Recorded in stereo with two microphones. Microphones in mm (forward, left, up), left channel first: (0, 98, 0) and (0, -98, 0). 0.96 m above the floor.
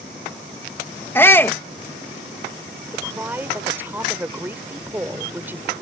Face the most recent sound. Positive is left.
turn(degrees=-10)  # may be behind; listen again after turning